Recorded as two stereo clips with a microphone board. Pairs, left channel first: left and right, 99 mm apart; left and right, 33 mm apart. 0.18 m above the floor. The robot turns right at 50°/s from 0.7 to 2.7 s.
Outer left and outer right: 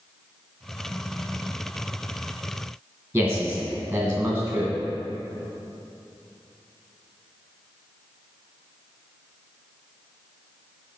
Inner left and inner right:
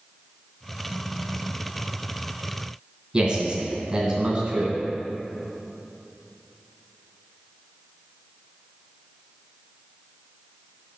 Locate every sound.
3.1 s a man speaking: 15° right (ahead or behind), 1.8 m